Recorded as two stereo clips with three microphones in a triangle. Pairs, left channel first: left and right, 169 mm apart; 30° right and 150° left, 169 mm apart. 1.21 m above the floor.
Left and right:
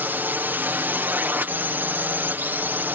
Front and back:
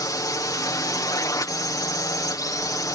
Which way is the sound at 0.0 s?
35° right.